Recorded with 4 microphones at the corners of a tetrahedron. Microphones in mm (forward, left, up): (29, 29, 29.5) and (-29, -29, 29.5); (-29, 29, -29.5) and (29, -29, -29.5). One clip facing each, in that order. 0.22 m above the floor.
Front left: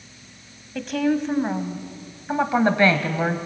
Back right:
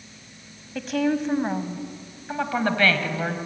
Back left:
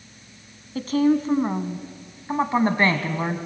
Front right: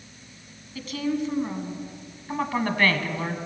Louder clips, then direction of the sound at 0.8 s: Front left 1 dB, back left 8 dB; 135° left.